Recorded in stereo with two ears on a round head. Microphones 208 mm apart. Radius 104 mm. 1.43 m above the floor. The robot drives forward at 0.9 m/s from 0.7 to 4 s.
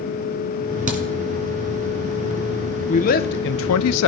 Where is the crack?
35° right (ahead or behind), 2 m.